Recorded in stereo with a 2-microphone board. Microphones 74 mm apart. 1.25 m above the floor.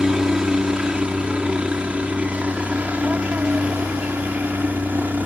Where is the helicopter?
10° right (ahead or behind); by 5.3 s 25° right (ahead or behind).